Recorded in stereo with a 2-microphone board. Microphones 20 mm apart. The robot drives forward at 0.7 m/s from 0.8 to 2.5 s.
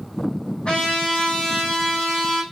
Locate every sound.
0.7 s a trumpet: 65° left (ahead or behind), 5.5 m; by 2.4 s 75° left (ahead or behind), 5.5 m